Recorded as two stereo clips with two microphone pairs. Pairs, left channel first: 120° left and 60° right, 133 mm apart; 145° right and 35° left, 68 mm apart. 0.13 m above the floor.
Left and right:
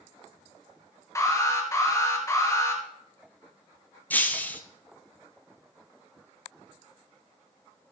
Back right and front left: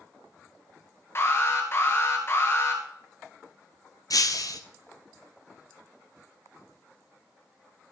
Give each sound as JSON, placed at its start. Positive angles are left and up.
{"t": 1.1, "sound": "an alarm", "azimuth_deg": 180, "distance_m": 2.5}
{"t": 4.1, "sound": "breaking glass", "azimuth_deg": -160, "distance_m": 1.0}